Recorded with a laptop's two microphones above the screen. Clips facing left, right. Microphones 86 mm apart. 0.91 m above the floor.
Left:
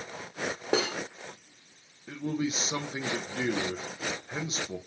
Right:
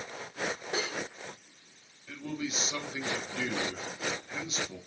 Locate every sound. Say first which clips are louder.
0.7 s cutlery clinking: left 10 dB; 70° left (ahead or behind), 0.6 m
2.1 s a man speaking: left 5 dB; 30° left (ahead or behind), 0.5 m